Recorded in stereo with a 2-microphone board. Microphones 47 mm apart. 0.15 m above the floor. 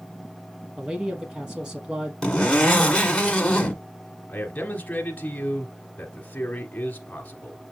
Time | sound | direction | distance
0.8 | a man speaking | 20° right (ahead or behind) | 3 m
2.2 | a zipper | 15° left (ahead or behind) | 1.6 m
4.3 | a man speaking | 30° left (ahead or behind) | 1.4 m